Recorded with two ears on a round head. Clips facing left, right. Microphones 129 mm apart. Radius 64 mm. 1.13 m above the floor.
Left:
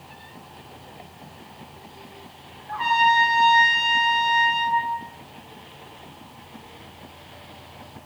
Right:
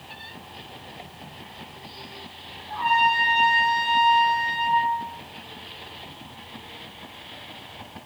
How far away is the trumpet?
About 1.1 m.